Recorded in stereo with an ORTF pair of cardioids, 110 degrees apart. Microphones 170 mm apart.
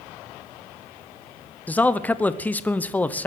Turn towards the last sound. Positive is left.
turn(degrees=10)